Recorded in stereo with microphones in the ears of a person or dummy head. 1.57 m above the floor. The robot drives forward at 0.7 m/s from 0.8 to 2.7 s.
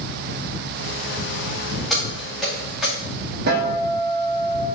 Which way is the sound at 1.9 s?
5° left (ahead or behind).